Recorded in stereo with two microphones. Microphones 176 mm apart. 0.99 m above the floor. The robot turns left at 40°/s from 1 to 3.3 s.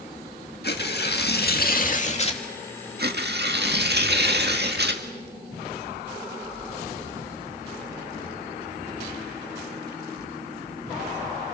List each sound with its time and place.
0.6 s tearing paper: 90° left, 2.0 m; by 2.4 s 35° left, 2.0 m
3.0 s tearing paper: 65° right (ahead or behind), 1.8 m; by 5.0 s 70° right (ahead or behind), 1.8 m